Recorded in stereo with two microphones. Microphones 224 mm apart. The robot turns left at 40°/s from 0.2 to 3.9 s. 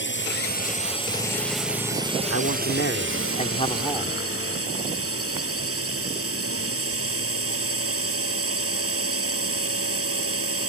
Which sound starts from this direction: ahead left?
A drone, at 0.0 s.